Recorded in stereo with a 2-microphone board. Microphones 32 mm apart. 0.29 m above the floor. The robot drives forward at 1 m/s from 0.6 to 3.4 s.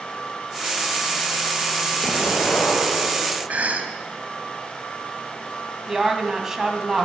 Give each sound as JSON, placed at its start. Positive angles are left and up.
{"t": 2.0, "sound": "an explosion", "side_deg": 65, "distance_m": 3.5}
{"t": 3.5, "sound": "a cough", "side_deg": -45, "distance_m": 2.5}
{"t": 5.9, "sound": "a woman speaking", "side_deg": -10, "distance_m": 2.0}